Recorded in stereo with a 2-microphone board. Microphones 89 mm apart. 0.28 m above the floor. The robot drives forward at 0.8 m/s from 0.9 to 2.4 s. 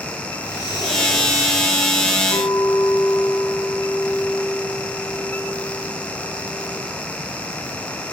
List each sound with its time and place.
0.4 s breathing: 45° right (ahead or behind), 5.5 m; by 1.6 s 40° right (ahead or behind), 6 m
2.3 s a clink: 55° left (ahead or behind), 1.3 m